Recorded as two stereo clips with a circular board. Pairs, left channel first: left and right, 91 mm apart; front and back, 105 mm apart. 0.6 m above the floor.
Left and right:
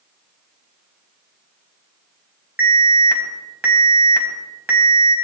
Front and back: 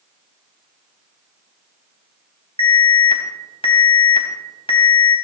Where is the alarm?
20° right, 3 m.